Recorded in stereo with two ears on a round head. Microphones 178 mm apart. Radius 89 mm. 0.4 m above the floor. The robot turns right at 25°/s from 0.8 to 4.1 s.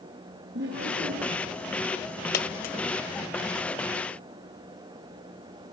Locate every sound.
0.5 s laughter: 55° right (ahead or behind), 6.5 m; by 1.5 s 40° right (ahead or behind), 6.5 m
2.3 s a dropped coin: 55° left (ahead or behind), 1.3 m; by 2.8 s 45° left (ahead or behind), 1.3 m